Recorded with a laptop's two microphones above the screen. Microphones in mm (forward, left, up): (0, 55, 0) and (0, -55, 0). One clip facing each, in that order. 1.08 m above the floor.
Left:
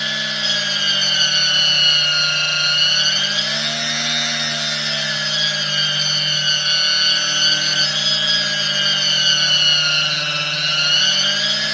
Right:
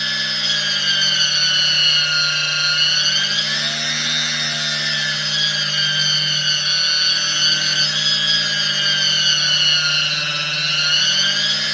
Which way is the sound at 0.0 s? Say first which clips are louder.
Left 2 dB; 65° left (ahead or behind).